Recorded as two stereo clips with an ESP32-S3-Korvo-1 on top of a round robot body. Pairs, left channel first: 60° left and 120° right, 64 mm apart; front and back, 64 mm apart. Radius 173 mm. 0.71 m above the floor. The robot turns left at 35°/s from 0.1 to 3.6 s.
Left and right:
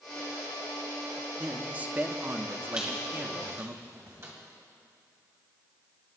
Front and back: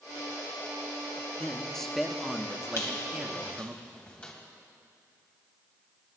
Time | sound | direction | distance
1.4 | a man speaking | 65° right | 1.2 m
2.8 | a squeak | 40° right | 1.9 m